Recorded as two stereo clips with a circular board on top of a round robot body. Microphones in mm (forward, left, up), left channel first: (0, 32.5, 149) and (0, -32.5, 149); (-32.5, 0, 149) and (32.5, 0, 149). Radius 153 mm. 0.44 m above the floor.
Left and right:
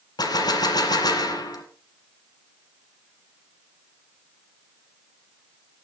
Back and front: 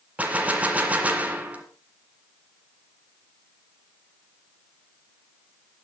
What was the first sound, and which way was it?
A gunshot, 70° left.